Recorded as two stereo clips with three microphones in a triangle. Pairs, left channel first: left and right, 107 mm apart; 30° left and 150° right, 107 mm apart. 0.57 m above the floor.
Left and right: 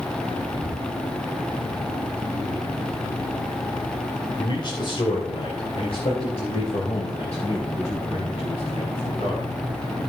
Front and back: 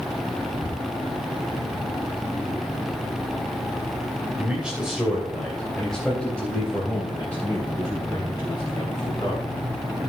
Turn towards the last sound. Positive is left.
turn(degrees=85)